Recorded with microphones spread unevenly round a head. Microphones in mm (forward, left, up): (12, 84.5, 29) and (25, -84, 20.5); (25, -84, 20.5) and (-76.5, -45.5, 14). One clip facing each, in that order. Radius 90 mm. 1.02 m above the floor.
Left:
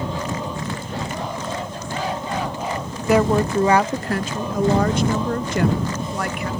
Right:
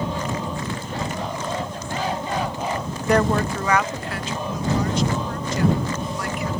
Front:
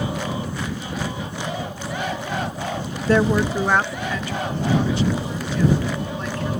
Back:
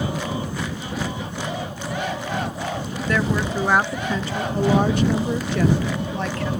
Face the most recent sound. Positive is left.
turn(degrees=135)